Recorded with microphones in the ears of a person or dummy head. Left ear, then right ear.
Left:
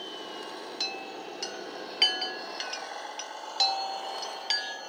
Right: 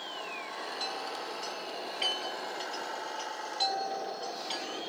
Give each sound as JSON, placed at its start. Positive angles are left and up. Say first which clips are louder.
{"t": 0.8, "sound": "a chime", "louder": "left 4 dB", "side_deg": 50, "distance_m": 0.5}